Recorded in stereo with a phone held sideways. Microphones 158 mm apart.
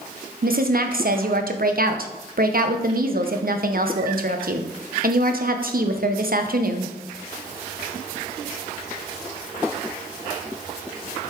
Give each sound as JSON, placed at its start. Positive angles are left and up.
{"t": 0.4, "sound": "a woman speaking", "side_deg": -65, "distance_m": 0.8}